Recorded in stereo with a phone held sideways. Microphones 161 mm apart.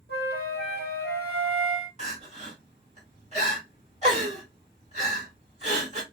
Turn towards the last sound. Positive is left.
turn(degrees=-45)  # may be behind; listen again after turning